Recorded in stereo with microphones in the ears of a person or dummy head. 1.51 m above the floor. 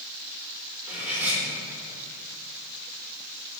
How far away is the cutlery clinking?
About 1.4 m.